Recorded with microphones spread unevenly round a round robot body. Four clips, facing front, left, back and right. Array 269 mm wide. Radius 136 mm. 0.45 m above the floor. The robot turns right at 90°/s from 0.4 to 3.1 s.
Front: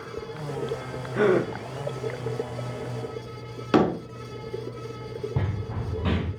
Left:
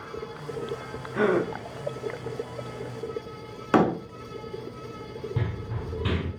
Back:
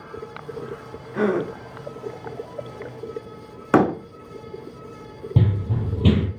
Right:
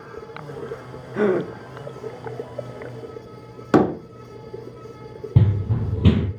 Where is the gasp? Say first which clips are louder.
Right 3 dB, front 1 dB; 90° right, 0.8 m; by 1.5 s 55° right, 0.8 m.